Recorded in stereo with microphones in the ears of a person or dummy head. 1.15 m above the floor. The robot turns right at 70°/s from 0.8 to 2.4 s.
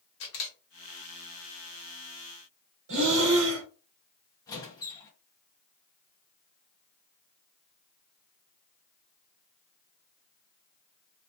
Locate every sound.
0.2 s a camera shutter: 65° left (ahead or behind), 0.9 m
2.9 s breathing: 65° right (ahead or behind), 0.9 m
4.5 s a squeak: 20° left (ahead or behind), 0.6 m